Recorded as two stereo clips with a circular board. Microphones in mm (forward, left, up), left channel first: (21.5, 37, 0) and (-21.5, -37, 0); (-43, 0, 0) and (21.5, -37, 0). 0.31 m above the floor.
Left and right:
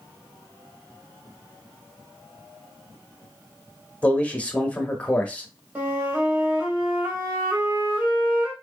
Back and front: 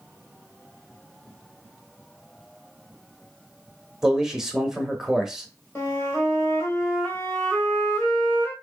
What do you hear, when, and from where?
4.0 s a man speaking: 40° left, 0.8 m
5.8 s a flute: 175° right, 1.8 m